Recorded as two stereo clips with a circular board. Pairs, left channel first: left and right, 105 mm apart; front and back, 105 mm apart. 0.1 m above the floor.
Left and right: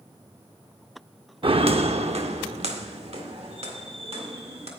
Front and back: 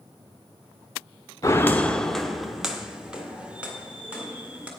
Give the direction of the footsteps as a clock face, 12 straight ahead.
2 o'clock.